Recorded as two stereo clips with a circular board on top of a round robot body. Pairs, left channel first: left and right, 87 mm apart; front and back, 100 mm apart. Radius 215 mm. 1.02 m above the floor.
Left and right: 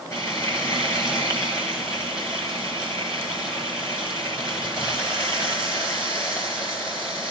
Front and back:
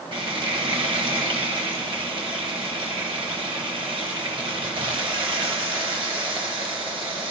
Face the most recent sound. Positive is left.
turn(degrees=145)